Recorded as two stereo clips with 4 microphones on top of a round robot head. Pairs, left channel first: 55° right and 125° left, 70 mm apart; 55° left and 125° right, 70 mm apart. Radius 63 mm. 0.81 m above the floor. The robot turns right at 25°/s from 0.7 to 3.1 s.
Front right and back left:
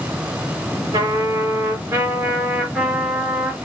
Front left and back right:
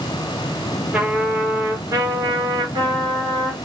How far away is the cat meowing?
I don't hear a cat meowing.